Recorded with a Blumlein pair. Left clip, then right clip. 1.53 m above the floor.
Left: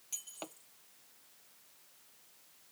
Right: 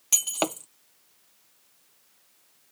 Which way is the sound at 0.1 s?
40° right.